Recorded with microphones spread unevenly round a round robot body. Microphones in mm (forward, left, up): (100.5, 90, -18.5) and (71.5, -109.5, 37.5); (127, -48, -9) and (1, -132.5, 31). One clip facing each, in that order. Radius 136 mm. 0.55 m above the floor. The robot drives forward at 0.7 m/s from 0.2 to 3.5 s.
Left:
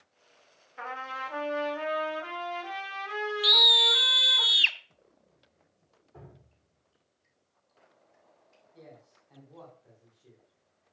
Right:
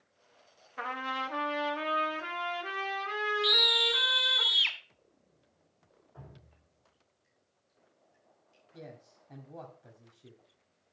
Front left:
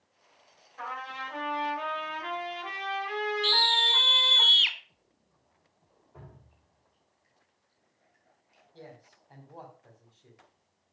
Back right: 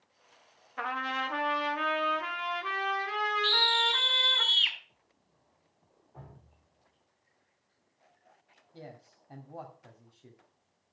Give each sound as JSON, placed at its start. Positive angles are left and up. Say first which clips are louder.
{"t": 0.8, "sound": "a trumpet", "louder": "right 2 dB, back right 4 dB", "azimuth_deg": -155, "distance_m": 1.1}
{"t": 3.4, "sound": "a scream", "louder": "even, front left 1 dB", "azimuth_deg": 70, "distance_m": 1.4}
{"t": 6.1, "sound": "dripping", "louder": "left 3 dB, even", "azimuth_deg": 120, "distance_m": 5.5}
{"t": 8.7, "sound": "a man speaking", "louder": "right 3 dB, back right 1 dB", "azimuth_deg": -120, "distance_m": 1.9}